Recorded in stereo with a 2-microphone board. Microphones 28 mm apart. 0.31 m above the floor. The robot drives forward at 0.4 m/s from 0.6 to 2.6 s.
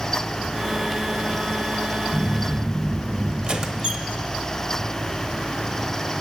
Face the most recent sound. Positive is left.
turn(degrees=-35)  # may be behind; listen again after turning